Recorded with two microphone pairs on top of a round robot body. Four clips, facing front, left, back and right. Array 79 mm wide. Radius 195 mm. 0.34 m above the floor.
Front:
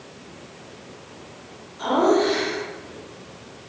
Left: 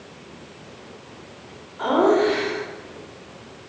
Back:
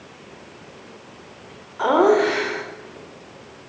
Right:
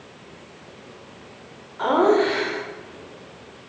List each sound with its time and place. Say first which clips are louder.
1.8 s laughter: even, back 3 dB; 160° right, 2.5 m